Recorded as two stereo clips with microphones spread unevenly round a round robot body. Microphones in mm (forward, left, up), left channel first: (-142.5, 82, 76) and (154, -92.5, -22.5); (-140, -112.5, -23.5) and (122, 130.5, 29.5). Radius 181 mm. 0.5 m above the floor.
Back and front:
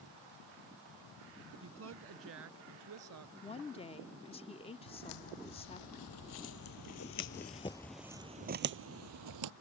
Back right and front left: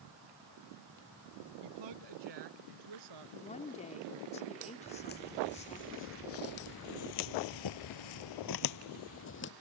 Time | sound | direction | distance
1.6 | a woman speaking | 20° left | ?
3.4 | a woman speaking | 120° right | ?
4.9 | footsteps | 155° left | ?